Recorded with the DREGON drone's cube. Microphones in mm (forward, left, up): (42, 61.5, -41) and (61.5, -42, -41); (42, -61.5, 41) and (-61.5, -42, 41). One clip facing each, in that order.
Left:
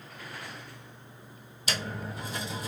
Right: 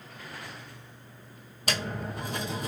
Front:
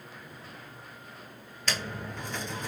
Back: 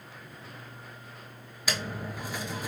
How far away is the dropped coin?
About 0.6 m.